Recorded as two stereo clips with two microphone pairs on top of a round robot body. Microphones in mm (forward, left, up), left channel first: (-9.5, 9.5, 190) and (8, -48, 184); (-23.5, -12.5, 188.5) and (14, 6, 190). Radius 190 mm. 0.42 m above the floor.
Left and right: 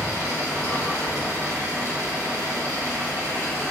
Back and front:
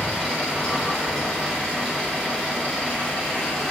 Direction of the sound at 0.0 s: 120° left.